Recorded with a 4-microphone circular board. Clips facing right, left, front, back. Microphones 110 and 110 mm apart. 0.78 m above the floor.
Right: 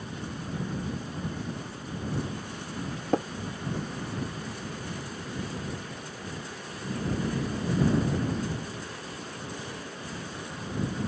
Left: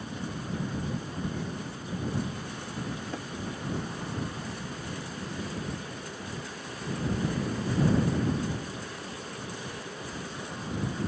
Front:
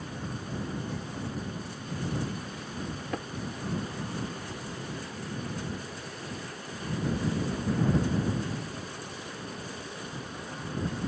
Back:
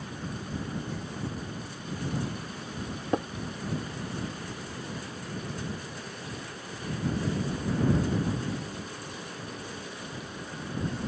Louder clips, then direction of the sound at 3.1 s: Right 11 dB, back 8 dB; 120° right.